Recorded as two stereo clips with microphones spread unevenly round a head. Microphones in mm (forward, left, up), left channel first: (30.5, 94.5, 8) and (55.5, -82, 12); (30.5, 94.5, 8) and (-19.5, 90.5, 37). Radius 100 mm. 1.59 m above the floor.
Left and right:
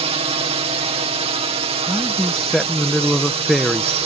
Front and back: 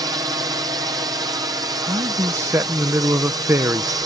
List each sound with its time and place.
0.0 s a drone: 140° right
1.9 s a man speaking: 170° right